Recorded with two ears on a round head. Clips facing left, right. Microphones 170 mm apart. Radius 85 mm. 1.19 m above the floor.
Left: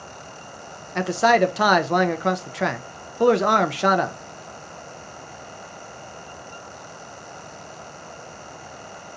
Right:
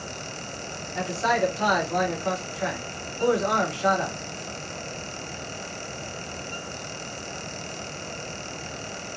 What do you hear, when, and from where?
0.9 s a man speaking: 75° left (ahead or behind), 0.6 m